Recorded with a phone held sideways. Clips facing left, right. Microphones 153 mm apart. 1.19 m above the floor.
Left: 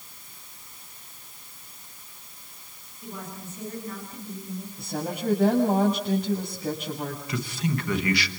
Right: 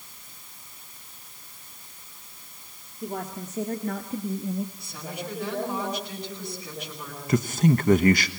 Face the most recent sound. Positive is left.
turn(degrees=-50)  # may be behind; listen again after turning